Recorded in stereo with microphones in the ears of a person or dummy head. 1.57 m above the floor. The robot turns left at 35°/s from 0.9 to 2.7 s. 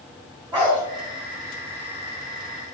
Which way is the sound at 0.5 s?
20° right (ahead or behind).